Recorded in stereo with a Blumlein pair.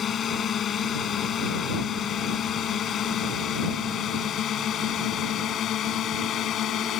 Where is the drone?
25° left; by 7.0 s 30° left.